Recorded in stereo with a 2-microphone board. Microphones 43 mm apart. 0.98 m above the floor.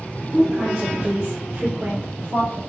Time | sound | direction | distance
0.3 | a woman speaking | 30° right (ahead or behind) | 0.9 m